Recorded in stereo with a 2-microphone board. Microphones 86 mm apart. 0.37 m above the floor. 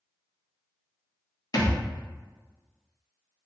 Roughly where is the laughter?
No laughter in this recording.